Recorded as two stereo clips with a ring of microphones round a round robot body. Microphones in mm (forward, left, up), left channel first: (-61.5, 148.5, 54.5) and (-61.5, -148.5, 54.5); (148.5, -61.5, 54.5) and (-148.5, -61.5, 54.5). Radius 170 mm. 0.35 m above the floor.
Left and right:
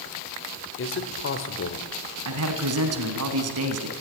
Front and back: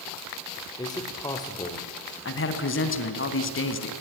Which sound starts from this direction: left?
A man speaking, at 0.8 s.